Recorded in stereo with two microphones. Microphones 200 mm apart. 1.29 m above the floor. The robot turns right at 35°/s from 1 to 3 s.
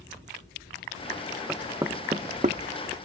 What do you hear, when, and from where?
1.5 s knocking: 5° right (ahead or behind); by 2.6 s 45° right (ahead or behind)